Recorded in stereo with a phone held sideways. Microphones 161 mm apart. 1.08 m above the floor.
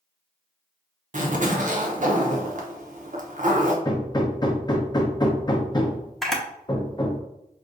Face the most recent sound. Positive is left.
turn(degrees=0)  # may be behind; listen again after turning